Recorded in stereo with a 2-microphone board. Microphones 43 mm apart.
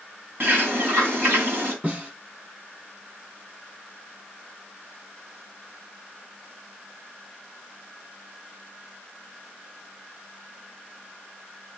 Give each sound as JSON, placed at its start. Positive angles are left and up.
{"t": 0.4, "sound": "a bird", "side_deg": -50, "distance_m": 3.0}
{"t": 1.8, "sound": "a snare drum", "side_deg": -30, "distance_m": 7.0}